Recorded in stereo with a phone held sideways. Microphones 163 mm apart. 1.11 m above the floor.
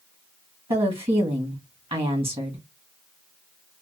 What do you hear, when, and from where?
0.7 s a woman speaking: 35° right (ahead or behind), 1.3 m